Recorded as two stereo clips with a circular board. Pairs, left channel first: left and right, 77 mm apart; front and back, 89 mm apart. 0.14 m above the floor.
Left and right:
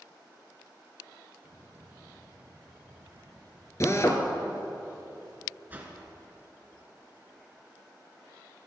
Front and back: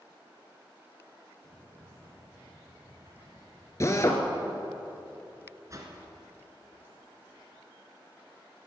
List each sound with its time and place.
1.4 s footsteps: 120° right, 3.5 m; by 3.7 s 130° right, 4.5 m
3.8 s a drill: 50° left, 1.5 m
5.7 s a whoosh: 150° right, 2 m